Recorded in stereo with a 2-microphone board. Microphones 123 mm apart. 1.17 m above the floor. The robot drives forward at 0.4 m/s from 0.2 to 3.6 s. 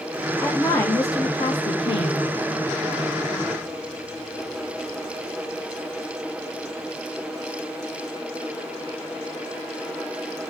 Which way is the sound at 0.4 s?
25° left (ahead or behind).